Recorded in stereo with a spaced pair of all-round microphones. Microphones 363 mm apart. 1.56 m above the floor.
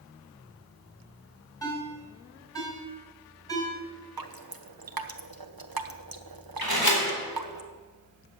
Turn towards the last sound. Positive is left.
turn(degrees=75)  # may be behind; listen again after turning